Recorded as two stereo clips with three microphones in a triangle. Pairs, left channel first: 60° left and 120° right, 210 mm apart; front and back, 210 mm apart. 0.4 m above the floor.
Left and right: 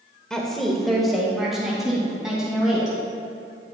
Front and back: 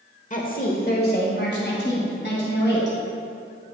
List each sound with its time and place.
0.3 s a woman speaking: 25° right, 0.9 m; by 3.0 s 35° right, 3 m